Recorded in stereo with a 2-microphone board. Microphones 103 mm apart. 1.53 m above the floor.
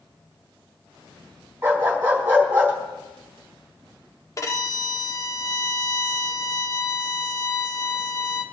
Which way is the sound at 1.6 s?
15° right (ahead or behind).